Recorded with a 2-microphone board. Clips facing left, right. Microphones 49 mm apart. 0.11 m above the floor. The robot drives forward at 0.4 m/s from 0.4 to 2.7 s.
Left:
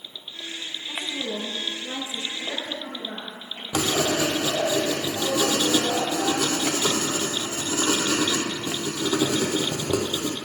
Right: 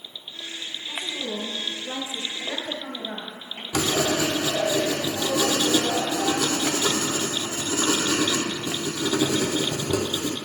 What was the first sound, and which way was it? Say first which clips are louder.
A woman speaking: left 1 dB; 10° left (ahead or behind).